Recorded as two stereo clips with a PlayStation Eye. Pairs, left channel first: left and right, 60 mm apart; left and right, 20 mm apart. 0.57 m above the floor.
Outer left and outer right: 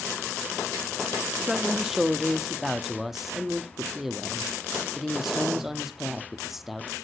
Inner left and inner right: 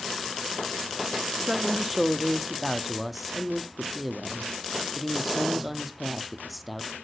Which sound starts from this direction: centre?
A woman speaking, at 1.4 s.